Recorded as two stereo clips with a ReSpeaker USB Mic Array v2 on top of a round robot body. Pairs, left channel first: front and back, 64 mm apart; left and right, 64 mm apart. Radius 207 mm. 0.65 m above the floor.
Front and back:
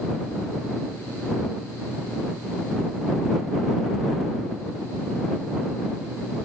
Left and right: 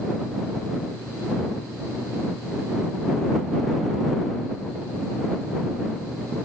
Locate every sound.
Only background noise.